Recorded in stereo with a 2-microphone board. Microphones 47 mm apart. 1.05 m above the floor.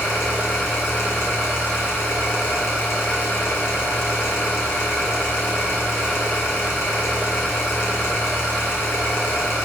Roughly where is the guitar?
I don't hear a guitar.